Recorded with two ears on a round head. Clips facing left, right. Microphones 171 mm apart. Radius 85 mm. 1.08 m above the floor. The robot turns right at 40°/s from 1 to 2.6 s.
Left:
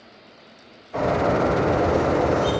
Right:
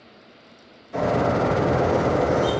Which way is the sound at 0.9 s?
115° right.